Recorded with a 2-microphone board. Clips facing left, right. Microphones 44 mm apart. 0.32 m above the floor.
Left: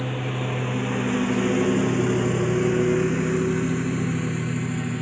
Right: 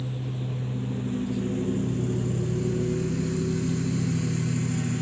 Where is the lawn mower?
90° left; by 5.0 s 20° left (ahead or behind).